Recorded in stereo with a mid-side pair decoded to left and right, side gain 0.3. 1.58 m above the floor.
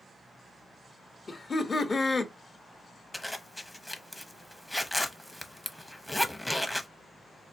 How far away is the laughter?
About 0.8 m.